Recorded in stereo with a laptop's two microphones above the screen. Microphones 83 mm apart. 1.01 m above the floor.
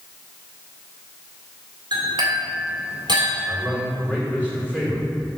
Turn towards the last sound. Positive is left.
turn(degrees=25)  # may be behind; listen again after turning